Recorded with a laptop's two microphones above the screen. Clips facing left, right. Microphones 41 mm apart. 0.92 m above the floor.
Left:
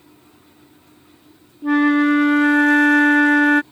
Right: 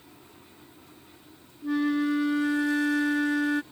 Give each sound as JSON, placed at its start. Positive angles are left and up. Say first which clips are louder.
{"t": 1.6, "sound": "a flute", "louder": "left 10 dB", "side_deg": 60}